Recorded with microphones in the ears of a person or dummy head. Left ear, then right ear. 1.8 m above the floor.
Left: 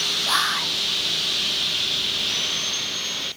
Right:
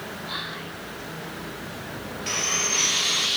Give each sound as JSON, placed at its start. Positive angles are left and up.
{"t": 0.3, "sound": "whispering", "side_deg": 45, "distance_m": 0.7}
{"t": 2.3, "sound": "sawing", "side_deg": -60, "distance_m": 6.0}